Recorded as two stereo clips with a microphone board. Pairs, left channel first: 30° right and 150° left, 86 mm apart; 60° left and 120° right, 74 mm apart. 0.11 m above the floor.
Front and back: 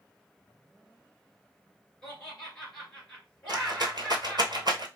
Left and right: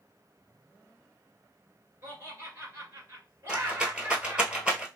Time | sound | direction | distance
2.0 | laughter | 110° right | 1.6 m
3.5 | a rattle | 165° left | 0.8 m